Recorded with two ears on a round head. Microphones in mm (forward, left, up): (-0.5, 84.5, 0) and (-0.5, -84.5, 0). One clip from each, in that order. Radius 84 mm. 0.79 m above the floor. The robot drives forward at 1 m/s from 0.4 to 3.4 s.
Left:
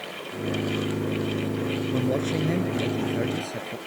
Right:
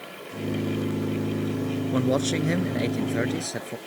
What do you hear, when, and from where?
1.9 s a man speaking: 45° right (ahead or behind); by 3.8 s 40° right (ahead or behind)